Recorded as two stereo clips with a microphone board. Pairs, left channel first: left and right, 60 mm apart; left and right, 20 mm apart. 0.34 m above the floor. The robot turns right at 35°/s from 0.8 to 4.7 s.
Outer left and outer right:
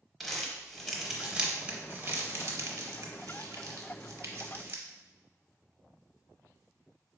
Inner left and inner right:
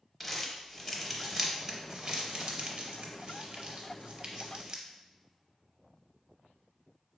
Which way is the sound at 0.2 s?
Centre (ahead or behind).